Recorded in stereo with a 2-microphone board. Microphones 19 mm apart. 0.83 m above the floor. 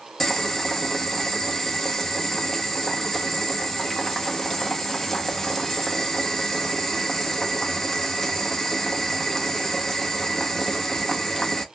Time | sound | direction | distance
0.2 | boiling | 20° left (ahead or behind) | 1.3 m